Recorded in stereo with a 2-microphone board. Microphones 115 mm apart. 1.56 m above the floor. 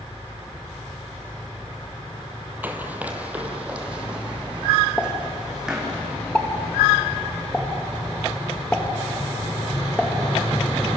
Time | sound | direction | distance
2.6 | running footsteps | 15° right (ahead or behind) | 2.5 m
5.0 | a pop | 10° left (ahead or behind) | 2.5 m